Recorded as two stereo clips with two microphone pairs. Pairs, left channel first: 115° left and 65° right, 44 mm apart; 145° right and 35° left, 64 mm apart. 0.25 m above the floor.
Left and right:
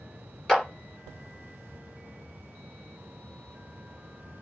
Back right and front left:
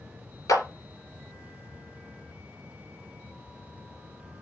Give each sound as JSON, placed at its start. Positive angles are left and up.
{"t": 0.5, "sound": "a clap", "azimuth_deg": -170, "distance_m": 3.0}